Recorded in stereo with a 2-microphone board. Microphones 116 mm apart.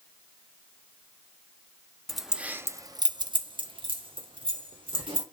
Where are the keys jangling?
Centre (ahead or behind), 0.6 m; by 5.2 s 45° right (ahead or behind), 1.6 m.